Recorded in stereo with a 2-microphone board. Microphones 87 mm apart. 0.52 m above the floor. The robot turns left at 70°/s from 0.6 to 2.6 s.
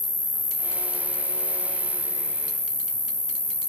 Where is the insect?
20° right, 0.8 m; by 3.7 s 160° right, 0.8 m.